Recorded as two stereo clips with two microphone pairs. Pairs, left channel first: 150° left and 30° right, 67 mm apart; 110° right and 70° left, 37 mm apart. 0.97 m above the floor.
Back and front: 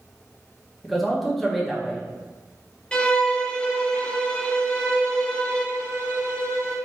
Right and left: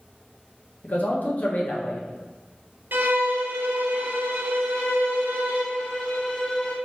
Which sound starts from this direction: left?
A violin, at 2.9 s.